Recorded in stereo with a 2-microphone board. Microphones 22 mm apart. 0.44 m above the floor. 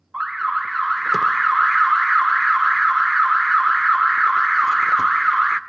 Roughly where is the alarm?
Centre.